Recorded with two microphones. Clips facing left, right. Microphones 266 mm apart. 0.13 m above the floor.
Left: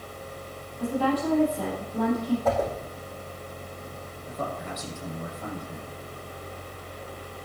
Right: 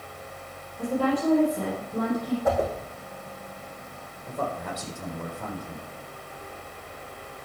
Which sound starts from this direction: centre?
A whoosh, at 2.5 s.